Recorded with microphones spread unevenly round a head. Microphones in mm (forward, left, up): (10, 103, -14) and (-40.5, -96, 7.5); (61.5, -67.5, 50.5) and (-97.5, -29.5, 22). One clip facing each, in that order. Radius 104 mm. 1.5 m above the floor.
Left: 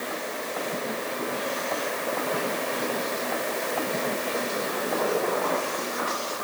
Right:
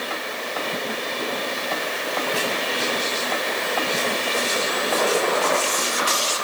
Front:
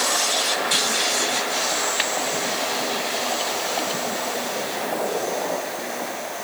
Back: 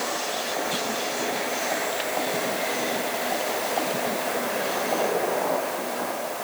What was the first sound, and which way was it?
Only background noise.